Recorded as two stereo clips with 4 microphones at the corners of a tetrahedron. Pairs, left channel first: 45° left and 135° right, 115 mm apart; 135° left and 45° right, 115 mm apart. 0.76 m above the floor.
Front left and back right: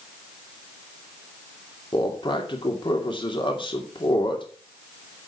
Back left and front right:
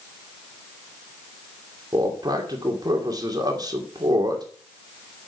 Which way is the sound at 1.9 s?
5° left.